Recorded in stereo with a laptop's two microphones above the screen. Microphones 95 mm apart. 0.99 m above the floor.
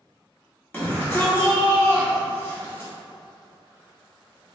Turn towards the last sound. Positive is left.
turn(degrees=25)  # may be behind; listen again after turning